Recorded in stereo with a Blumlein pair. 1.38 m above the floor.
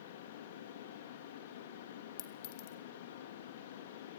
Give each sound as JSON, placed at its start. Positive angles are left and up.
{"t": 0.0, "sound": "a fan", "azimuth_deg": 60, "distance_m": 3.0}
{"t": 2.2, "sound": "a clink", "azimuth_deg": 45, "distance_m": 1.8}